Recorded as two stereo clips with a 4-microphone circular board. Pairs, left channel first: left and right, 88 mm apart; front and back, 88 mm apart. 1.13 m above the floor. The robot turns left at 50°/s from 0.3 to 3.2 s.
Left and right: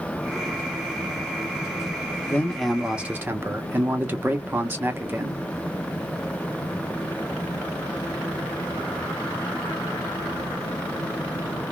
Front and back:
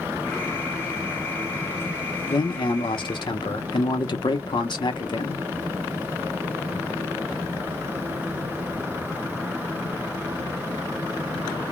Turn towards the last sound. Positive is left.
turn(degrees=-25)